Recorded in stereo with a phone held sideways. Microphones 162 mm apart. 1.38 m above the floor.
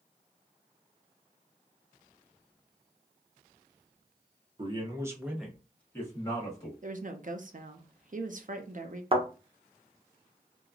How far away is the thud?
About 0.9 m.